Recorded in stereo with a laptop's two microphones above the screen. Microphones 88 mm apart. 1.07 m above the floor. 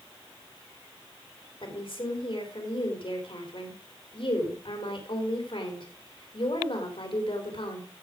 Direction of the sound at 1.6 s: 65° left (ahead or behind).